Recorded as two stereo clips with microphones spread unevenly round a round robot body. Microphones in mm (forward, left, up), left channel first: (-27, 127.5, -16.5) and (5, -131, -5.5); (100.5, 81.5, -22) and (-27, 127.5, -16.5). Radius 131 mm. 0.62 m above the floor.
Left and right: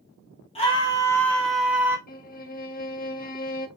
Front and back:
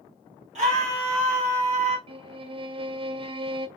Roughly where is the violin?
Behind left.